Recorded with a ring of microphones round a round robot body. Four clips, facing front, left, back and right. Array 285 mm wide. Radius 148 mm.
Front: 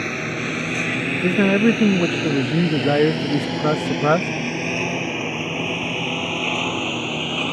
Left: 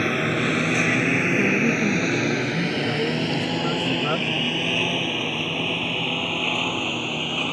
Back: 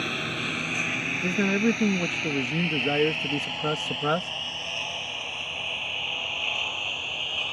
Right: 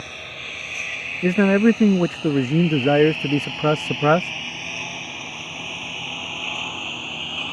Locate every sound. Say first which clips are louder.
0.0 s a lawn mower: left 16 dB, front 6 dB; 75° left; by 7.5 s 20° left
1.2 s a man speaking: right 5 dB, front 8 dB; 55° right